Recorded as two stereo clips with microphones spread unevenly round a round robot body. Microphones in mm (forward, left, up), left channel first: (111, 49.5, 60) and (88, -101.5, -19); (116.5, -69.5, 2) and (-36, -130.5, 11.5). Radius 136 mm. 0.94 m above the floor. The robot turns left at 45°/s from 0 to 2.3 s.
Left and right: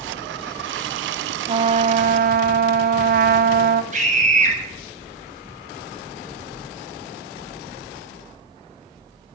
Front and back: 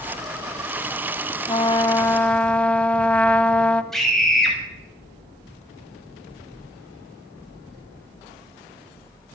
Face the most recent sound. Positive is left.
turn(degrees=-65)